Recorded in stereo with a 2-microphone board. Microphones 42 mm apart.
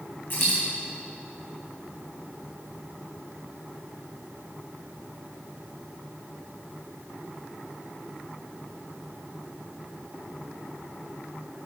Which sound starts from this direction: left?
A dropped coin, at 0.3 s.